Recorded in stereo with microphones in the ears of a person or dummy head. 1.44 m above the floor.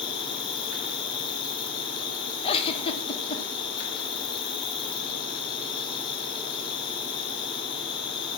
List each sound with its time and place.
0.0 s an insect: 30° left (ahead or behind), 3 m
2.4 s a giggle: 35° left (ahead or behind), 1.7 m